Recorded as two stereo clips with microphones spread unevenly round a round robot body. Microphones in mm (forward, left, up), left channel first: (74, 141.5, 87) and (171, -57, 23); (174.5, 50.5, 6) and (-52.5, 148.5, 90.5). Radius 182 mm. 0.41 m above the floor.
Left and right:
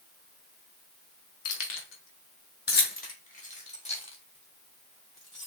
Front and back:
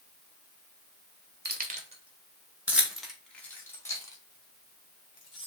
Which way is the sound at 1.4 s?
100° left.